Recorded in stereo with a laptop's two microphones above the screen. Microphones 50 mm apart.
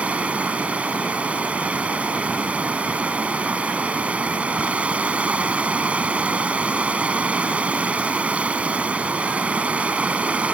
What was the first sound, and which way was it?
Running water, 25° right (ahead or behind).